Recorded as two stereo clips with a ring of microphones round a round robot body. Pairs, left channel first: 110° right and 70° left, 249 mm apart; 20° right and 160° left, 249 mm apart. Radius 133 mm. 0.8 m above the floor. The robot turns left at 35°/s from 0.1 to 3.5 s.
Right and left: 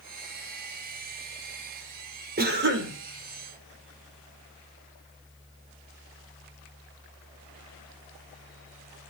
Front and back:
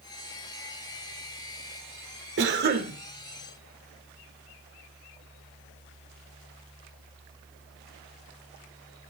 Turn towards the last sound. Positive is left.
turn(degrees=80)